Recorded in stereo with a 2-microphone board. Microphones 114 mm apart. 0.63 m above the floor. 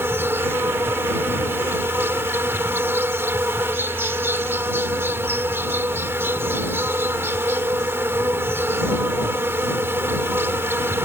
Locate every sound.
0.0 s an insect: 20° right (ahead or behind)